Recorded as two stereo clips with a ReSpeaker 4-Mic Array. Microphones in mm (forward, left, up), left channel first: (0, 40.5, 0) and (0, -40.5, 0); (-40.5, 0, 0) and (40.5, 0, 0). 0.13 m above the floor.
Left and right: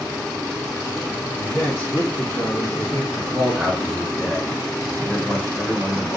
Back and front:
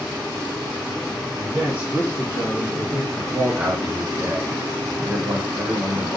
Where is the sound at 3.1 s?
10° left, 1.2 m.